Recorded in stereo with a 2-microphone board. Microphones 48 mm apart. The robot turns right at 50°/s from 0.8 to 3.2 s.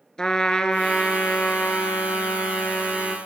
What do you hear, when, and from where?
0.2 s a trumpet: 20° left, 0.7 m; by 3.2 s 140° left, 0.7 m